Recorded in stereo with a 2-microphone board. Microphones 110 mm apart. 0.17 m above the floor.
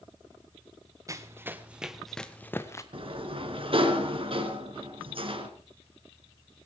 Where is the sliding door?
55° right (ahead or behind), 2 m.